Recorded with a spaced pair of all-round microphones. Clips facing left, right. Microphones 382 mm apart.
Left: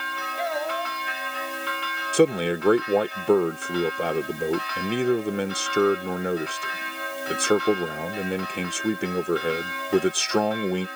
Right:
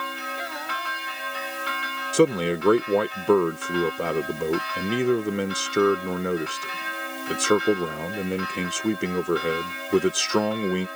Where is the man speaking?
5° right (ahead or behind).